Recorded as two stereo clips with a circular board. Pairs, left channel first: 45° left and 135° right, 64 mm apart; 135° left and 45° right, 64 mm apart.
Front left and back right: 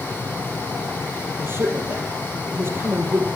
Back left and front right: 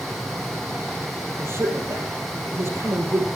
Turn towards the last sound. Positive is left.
turn(degrees=-85)